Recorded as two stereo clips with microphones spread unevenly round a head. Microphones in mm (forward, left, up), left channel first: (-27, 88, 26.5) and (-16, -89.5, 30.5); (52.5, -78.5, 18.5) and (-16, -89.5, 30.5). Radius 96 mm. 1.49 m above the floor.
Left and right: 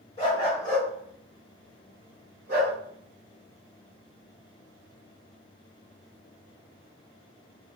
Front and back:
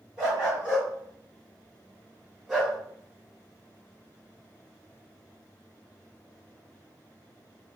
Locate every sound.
0.2 s a dog barking: 135° left, 1.4 m; by 2.8 s 90° right, 1.8 m